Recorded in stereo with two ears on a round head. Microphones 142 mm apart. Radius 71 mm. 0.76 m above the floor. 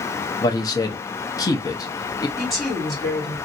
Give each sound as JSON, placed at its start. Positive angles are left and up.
{"t": 0.4, "sound": "a man speaking", "side_deg": 25, "distance_m": 0.7}
{"t": 2.4, "sound": "a woman speaking", "side_deg": 0, "distance_m": 2.0}